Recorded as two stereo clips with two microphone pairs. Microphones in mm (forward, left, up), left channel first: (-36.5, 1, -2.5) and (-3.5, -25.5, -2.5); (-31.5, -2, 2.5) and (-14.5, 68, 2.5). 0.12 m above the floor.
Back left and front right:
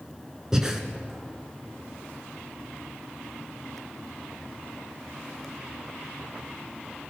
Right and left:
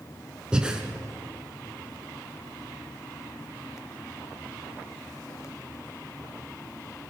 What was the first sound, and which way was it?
Breathing, 20° left.